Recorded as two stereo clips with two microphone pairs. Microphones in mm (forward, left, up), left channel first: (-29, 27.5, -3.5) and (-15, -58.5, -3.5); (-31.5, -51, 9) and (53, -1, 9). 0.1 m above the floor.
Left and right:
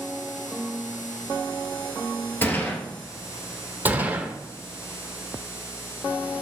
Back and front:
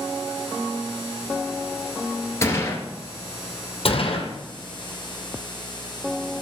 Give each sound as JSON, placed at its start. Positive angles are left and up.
{"t": 2.4, "sound": "a gunshot", "azimuth_deg": 155, "distance_m": 1.8}
{"t": 3.9, "sound": "a gunshot", "azimuth_deg": -150, "distance_m": 1.9}